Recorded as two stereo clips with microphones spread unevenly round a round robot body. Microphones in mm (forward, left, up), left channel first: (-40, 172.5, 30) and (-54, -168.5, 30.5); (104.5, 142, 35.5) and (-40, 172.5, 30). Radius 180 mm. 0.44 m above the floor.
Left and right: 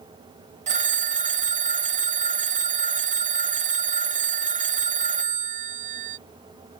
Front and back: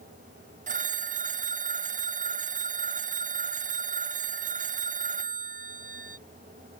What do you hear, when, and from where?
0.7 s a phone ringing: 160° right